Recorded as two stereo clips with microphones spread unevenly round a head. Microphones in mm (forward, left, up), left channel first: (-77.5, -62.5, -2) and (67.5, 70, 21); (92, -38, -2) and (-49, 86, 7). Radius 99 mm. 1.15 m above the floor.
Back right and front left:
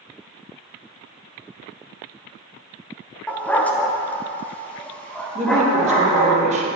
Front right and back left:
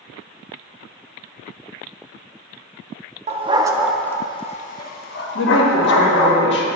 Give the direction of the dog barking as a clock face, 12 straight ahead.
8 o'clock.